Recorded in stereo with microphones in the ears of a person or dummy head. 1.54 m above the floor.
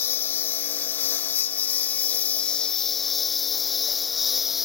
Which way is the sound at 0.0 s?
15° left (ahead or behind).